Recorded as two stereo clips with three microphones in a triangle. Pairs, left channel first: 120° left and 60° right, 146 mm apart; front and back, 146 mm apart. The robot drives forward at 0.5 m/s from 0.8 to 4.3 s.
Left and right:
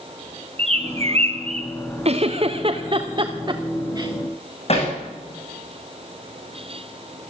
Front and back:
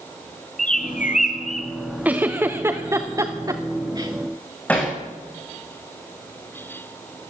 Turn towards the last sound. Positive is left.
turn(degrees=80)